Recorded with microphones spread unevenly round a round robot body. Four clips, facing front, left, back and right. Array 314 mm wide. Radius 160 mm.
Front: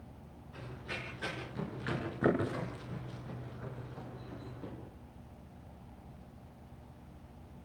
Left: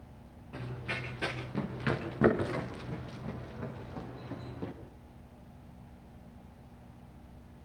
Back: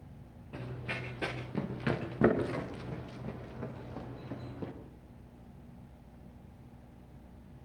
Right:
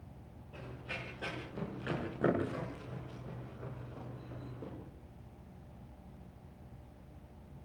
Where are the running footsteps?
140° left, 9 m; by 4.7 s 120° left, 7 m.